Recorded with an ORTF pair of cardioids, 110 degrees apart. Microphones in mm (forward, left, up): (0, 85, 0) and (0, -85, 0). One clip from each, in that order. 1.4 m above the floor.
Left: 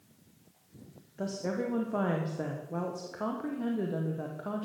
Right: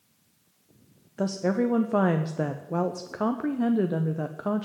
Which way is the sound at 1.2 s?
35° right.